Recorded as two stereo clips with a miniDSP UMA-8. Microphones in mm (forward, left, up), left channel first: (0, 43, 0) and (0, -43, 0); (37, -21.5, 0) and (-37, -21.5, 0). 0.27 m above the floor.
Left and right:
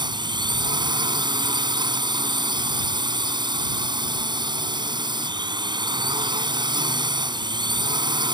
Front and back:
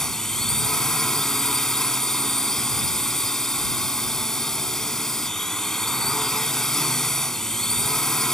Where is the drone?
85° right.